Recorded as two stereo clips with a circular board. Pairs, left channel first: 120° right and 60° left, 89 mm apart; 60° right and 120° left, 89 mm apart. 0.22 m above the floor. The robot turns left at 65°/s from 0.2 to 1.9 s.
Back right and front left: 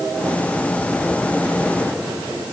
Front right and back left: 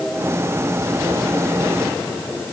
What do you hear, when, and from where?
Only background noise.